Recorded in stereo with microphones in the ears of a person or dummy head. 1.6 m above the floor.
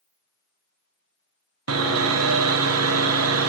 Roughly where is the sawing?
Right.